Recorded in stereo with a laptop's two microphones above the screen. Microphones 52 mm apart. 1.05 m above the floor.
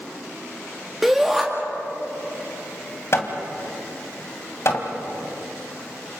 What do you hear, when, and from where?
1.0 s a shout: 5° right (ahead or behind), 2 m
3.1 s hammering: 55° left (ahead or behind), 2 m